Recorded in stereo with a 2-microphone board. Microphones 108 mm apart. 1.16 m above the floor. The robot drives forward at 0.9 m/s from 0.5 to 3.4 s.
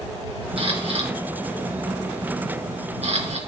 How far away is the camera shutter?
About 3.5 m.